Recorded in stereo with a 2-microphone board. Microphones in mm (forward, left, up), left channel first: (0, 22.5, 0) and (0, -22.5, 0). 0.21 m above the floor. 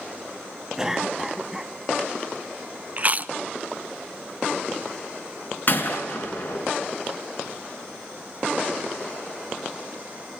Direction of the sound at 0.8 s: 10° right (ahead or behind).